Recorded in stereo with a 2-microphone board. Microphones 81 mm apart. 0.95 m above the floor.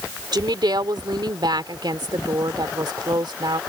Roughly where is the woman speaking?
Right.